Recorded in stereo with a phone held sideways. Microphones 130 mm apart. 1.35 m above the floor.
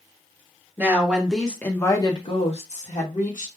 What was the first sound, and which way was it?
A woman speaking, 15° right (ahead or behind).